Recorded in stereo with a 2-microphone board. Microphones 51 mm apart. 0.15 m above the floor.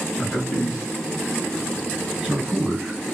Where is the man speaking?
35° left (ahead or behind), 2 m; by 3.0 s 20° right (ahead or behind), 1.7 m.